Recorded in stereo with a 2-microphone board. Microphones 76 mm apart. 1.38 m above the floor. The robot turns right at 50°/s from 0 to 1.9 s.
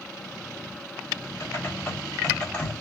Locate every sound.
1.4 s typing on a keyboard: 40° left (ahead or behind), 5 m; by 2.7 s 15° left (ahead or behind), 5 m